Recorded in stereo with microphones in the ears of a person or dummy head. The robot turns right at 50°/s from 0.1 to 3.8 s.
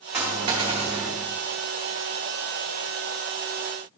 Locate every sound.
0.1 s a dropped coin: 165° right, 1.2 m; by 1.1 s 115° right, 1.2 m